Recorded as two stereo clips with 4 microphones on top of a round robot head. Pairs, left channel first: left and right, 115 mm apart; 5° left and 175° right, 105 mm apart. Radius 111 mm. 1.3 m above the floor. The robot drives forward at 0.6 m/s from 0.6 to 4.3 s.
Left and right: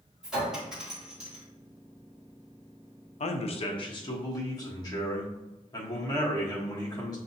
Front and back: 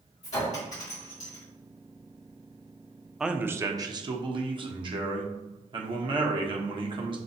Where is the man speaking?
100° left, 0.6 m; by 7.2 s 145° left, 1.0 m.